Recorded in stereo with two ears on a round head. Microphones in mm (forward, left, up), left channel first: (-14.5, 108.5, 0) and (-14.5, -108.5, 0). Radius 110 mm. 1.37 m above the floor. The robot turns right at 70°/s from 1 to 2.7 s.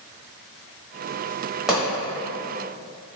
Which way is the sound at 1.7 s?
5° right (ahead or behind).